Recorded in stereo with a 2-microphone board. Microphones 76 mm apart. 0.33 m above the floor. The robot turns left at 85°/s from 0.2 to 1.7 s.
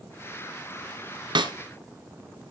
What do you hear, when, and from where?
1.4 s a snare drum: 85° right, 1.3 m; by 1.5 s 70° right (ahead or behind), 1.3 m